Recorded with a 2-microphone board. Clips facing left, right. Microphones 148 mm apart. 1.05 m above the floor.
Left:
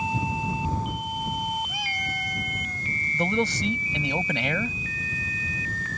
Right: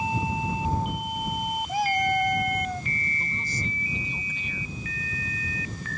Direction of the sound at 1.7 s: 45° right (ahead or behind).